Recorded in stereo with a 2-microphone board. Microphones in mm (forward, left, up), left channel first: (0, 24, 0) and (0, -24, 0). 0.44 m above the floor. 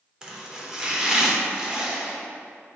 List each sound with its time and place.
0.2 s chopping: 15° right (ahead or behind), 0.7 m